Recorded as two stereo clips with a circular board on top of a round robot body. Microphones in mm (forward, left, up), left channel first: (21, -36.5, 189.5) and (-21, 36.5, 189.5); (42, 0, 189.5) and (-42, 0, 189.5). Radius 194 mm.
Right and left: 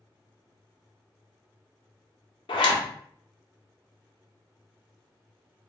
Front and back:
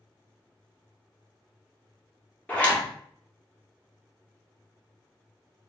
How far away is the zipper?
About 0.6 m.